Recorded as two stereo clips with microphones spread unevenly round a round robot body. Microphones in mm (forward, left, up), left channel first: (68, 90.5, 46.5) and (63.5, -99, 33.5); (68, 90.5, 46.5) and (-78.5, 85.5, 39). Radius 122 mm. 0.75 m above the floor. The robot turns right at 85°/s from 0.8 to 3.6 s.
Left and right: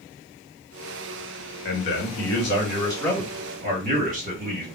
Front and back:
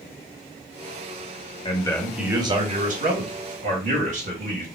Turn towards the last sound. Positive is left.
turn(degrees=-140)